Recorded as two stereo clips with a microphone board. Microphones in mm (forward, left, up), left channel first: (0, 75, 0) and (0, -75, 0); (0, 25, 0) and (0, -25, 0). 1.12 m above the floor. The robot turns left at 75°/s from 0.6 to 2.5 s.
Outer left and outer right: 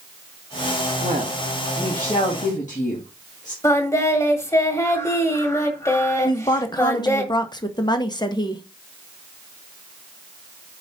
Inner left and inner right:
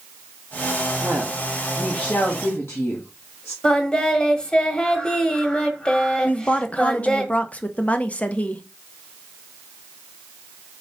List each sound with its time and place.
1.0 s a woman speaking: 125° right, 1.8 m; by 3.5 s 125° left, 1.8 m
3.6 s singing: 20° left (ahead or behind), 1.4 m
6.2 s a woman speaking: 30° left (ahead or behind), 1.0 m